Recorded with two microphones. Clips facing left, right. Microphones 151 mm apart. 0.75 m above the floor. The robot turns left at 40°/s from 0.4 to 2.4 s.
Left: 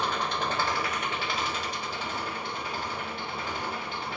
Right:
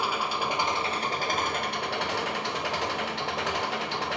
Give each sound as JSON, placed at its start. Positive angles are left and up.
{"t": 0.0, "sound": "an engine running", "azimuth_deg": -10, "distance_m": 1.3}